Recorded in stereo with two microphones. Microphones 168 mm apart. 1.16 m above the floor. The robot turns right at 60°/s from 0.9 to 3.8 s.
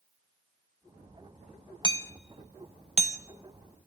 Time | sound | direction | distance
1.8 | hammering | 25° left (ahead or behind) | 1.2 m